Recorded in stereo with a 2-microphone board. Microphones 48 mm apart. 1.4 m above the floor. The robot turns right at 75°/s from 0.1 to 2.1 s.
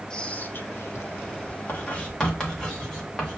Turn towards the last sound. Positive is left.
turn(degrees=15)  # may be behind; listen again after turning